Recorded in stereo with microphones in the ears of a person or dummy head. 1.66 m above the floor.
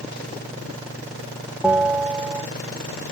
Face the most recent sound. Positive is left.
turn(degrees=0)  # may be behind; listen again after turning